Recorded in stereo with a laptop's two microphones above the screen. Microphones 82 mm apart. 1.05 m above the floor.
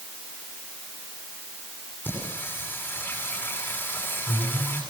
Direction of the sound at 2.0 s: 20° left (ahead or behind).